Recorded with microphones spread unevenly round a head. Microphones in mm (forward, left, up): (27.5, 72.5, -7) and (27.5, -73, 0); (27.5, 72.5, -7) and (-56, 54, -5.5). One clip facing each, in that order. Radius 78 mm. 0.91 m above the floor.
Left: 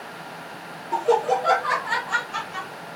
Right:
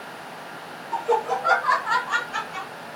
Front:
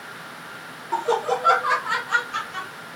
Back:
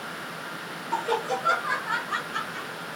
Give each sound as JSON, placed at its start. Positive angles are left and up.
{"t": 0.9, "sound": "laughter", "azimuth_deg": 90, "distance_m": 0.6}